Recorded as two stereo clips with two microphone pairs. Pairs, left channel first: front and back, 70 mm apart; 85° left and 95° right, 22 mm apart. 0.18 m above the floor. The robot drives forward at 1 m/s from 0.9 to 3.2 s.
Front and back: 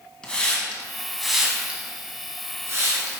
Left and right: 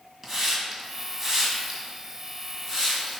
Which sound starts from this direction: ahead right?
A hiss, at 0.2 s.